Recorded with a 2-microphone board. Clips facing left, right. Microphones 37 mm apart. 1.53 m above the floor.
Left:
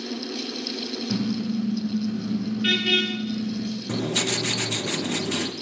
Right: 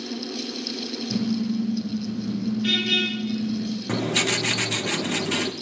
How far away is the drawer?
No drawer in this recording.